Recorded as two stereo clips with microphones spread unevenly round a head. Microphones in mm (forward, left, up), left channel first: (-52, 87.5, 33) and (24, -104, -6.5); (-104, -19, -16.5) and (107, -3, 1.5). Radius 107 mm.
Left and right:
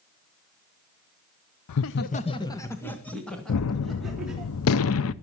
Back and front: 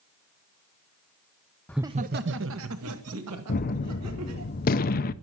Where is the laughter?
105° left, 0.5 m; by 4.5 s 20° left, 4 m.